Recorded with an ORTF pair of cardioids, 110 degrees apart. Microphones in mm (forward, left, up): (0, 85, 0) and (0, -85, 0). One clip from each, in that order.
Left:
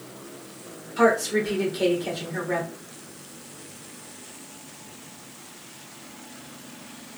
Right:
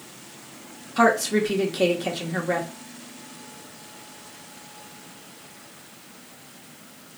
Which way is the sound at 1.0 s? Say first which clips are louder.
Right 1 dB; 60° right.